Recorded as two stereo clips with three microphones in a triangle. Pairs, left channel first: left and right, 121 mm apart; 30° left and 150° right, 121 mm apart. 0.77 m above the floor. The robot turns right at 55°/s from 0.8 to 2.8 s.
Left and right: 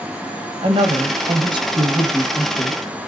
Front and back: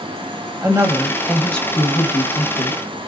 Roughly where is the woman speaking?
Right.